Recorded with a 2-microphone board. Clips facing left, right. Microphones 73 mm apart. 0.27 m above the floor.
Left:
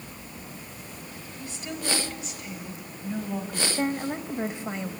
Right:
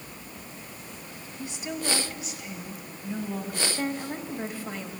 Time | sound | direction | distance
1.4 | a woman speaking | 20° right (ahead or behind) | 1.7 m
3.8 | a woman speaking | 20° left (ahead or behind) | 1.0 m